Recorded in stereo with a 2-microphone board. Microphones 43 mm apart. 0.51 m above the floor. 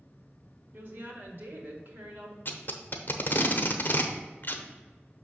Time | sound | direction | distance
0.7 | a woman speaking | 55° right (ahead or behind) | 1.4 m
2.5 | tape being pulled | 50° left (ahead or behind) | 0.7 m